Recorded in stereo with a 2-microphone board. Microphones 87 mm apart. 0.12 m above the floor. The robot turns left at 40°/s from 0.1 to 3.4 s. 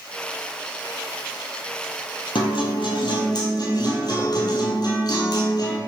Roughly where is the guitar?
Left.